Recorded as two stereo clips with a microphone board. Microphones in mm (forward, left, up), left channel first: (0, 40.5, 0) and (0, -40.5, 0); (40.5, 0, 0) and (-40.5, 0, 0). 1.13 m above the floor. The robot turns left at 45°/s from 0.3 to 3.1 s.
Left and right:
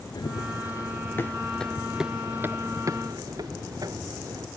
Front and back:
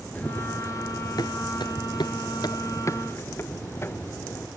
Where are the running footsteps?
70° left; by 4.5 s 55° right.